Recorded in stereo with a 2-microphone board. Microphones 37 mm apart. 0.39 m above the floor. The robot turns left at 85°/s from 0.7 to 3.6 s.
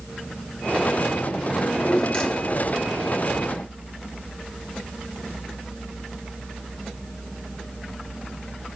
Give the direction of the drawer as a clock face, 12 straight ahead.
6 o'clock.